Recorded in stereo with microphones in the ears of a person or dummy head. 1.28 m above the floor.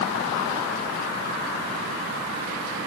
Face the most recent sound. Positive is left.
No sound to turn to.